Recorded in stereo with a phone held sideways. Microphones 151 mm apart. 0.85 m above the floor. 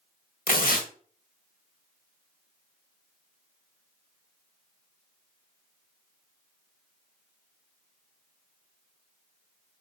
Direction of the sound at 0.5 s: 75° left (ahead or behind).